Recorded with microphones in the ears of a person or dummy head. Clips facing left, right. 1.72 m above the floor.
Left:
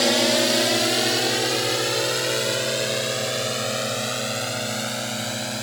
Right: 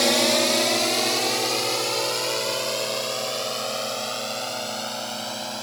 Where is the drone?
5° left (ahead or behind); by 5.6 s 25° left (ahead or behind).